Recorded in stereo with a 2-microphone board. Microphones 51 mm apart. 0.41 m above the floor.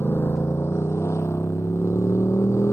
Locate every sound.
0.0 s a motorcycle: 70° left (ahead or behind); by 2.7 s 85° left